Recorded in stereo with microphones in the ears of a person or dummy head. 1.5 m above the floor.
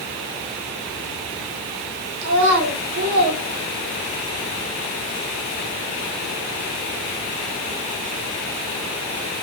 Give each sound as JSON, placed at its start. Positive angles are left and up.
{"t": 2.2, "sound": "a child speaking", "side_deg": -70, "distance_m": 1.9}